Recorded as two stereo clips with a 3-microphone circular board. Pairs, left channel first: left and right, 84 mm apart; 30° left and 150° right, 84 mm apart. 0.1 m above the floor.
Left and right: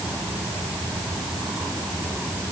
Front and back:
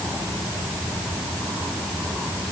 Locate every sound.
Only background noise.